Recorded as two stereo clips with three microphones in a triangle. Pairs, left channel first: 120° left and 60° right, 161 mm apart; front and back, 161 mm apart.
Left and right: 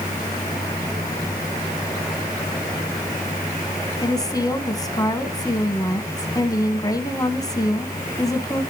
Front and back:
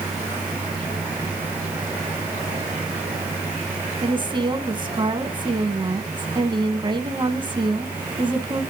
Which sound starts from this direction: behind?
A woman speaking, at 4.0 s.